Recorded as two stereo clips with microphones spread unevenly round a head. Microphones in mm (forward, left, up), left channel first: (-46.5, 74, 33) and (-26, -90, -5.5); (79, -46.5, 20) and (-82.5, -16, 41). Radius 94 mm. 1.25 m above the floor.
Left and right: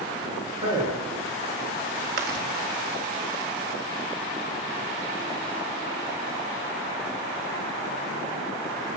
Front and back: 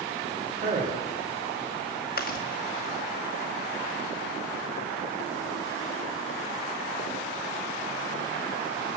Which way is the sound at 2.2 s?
45° right.